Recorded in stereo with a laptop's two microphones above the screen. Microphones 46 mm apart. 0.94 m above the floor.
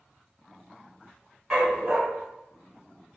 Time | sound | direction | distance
1.5 | a dog barking | 15° right (ahead or behind) | 1.6 m